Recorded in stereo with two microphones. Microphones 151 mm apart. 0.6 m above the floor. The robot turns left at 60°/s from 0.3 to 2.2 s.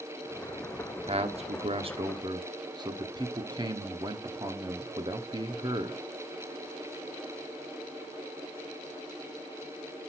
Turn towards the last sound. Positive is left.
turn(degrees=-135)